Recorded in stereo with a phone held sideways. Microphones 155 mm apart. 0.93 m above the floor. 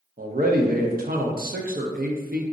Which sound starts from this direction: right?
A man speaking, at 0.2 s.